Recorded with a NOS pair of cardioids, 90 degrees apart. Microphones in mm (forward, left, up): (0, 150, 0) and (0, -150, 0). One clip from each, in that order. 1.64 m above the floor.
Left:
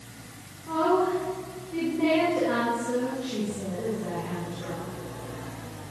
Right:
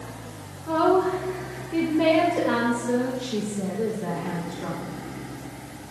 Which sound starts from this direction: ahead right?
A woman speaking, at 0.7 s.